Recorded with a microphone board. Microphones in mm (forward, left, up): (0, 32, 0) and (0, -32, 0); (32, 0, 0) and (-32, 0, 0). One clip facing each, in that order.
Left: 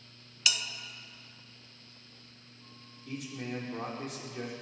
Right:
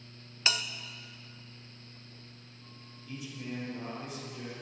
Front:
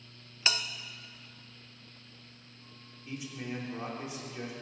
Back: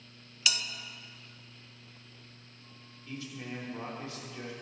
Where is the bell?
45° right, 0.7 m.